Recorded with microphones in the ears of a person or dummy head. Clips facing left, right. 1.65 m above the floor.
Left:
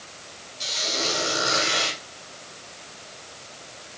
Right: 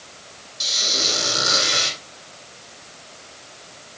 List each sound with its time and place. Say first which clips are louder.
0.6 s a squeak: even; 70° right (ahead or behind), 5.5 m